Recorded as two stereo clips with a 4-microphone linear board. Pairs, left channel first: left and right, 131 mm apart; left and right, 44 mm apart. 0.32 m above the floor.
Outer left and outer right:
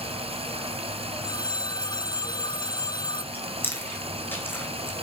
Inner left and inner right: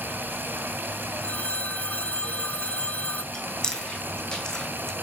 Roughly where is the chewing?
Centre.